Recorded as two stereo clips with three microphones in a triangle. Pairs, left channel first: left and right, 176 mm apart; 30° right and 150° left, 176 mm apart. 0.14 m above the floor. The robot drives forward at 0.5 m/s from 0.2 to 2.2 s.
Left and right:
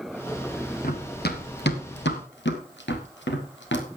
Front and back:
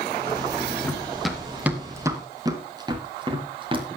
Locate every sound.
0.8 s running footsteps: 55° left, 3 m; by 3.9 s 90° left, 3.5 m